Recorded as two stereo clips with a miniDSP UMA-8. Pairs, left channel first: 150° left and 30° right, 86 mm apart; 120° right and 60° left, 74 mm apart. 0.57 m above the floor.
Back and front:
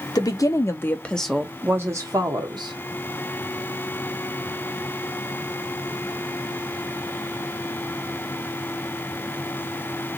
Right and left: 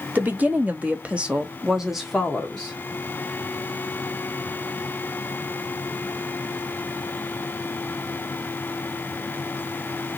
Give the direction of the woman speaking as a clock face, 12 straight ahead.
8 o'clock.